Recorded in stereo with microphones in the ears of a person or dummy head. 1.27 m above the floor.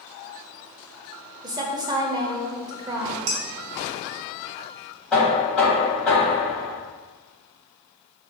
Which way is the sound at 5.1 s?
5° left (ahead or behind).